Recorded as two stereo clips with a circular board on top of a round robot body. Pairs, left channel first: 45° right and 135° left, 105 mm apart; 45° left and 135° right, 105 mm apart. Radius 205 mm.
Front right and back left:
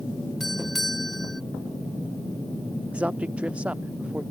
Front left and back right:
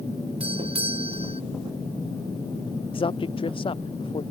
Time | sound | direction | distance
0.4 | a doorbell | 135° right | ?
2.9 | a man speaking | 60° left | ?